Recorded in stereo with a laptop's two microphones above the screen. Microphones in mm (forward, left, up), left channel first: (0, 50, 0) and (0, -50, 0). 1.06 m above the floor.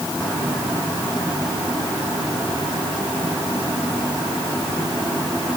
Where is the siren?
No siren in this recording.